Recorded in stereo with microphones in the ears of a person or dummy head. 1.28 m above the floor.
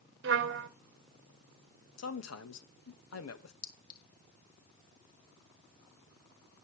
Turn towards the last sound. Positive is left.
turn(degrees=50)  # may be behind; listen again after turning